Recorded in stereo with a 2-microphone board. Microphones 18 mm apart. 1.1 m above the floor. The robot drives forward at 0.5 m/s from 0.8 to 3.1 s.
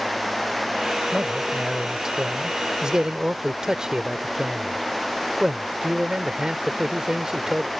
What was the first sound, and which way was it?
A man speaking, 35° right (ahead or behind).